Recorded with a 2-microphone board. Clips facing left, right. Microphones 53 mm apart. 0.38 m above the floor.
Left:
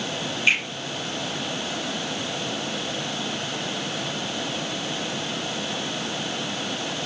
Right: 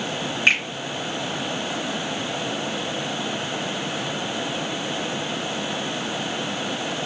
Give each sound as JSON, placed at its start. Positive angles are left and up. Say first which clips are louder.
{"t": 0.5, "sound": "a finger snap", "louder": "right 2 dB", "side_deg": -80, "distance_m": 3.5}